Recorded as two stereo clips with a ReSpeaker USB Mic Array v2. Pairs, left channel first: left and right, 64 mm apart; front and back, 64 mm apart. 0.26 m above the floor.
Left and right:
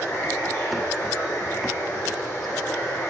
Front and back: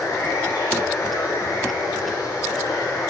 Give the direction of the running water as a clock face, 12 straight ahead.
11 o'clock.